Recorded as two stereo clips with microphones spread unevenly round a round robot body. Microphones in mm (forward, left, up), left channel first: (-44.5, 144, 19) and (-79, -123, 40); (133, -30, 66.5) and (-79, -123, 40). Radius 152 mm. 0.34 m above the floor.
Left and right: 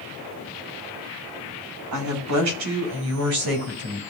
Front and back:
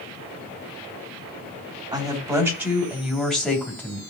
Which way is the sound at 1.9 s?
85° right.